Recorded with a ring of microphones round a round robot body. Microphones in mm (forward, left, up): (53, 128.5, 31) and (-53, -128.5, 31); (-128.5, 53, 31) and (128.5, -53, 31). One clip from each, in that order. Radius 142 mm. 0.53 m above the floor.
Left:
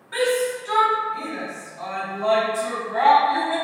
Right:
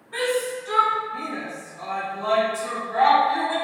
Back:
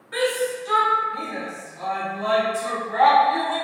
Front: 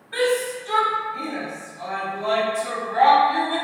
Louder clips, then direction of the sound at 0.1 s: Left 3 dB, front 1 dB; 105° left.